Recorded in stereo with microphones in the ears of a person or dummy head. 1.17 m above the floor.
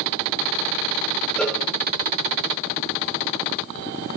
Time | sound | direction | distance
1.4 | a cowbell | 5° left (ahead or behind) | 1.1 m